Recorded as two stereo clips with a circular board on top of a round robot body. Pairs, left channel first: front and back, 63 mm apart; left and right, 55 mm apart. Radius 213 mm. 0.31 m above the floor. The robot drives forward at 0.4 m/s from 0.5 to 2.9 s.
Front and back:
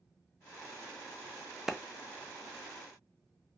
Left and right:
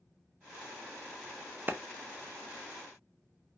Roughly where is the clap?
Right.